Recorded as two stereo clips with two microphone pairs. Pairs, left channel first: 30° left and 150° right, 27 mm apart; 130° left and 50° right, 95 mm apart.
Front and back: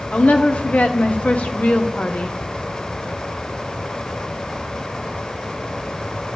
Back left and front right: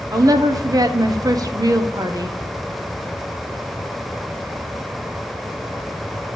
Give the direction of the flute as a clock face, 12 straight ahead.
No flute in this recording.